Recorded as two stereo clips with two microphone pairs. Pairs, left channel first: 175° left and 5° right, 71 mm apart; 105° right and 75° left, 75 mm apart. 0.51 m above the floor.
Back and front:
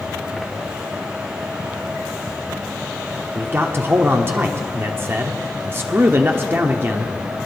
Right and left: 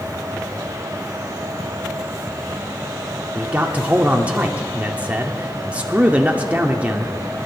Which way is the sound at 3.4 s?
15° left.